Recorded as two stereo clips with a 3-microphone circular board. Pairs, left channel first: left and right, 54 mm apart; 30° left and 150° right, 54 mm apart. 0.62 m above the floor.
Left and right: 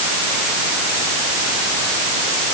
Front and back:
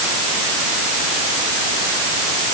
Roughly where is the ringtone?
No ringtone in this recording.